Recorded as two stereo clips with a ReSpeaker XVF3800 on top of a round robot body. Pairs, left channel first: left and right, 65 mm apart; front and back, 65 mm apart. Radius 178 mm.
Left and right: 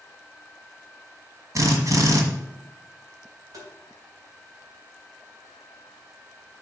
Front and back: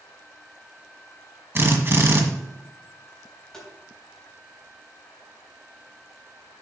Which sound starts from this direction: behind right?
A drill, at 1.6 s.